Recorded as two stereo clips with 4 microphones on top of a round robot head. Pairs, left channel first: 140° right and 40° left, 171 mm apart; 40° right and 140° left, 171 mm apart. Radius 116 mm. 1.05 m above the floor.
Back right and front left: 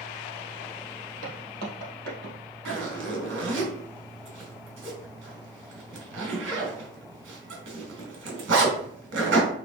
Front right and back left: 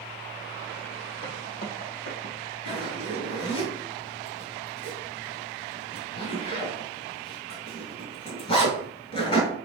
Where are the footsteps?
5° right, 2.5 m; by 2.4 s 10° left, 2.5 m.